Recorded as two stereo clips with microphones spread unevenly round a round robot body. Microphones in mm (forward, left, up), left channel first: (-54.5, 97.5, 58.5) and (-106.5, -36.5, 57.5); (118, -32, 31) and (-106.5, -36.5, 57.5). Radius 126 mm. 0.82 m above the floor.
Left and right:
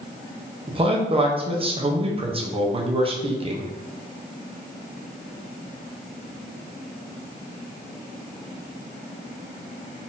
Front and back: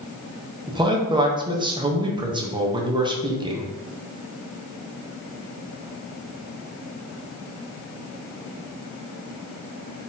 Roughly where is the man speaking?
Right.